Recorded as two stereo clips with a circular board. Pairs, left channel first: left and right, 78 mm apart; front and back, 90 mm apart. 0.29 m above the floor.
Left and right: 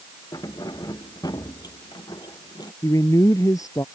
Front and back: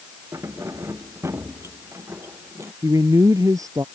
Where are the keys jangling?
125° left; by 2.7 s 120° left.